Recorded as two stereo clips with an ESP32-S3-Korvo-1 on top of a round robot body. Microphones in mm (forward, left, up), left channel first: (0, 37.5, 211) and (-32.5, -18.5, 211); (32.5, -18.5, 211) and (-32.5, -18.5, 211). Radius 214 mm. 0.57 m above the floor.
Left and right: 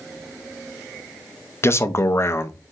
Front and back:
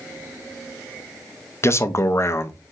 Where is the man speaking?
30° left, 0.9 m.